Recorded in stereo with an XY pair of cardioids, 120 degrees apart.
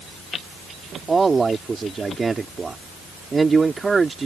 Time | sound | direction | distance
1.1 | a man speaking | 25° right | ?